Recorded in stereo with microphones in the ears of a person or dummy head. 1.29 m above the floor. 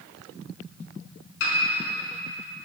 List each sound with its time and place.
1.4 s a piano: 80° left, 4.5 m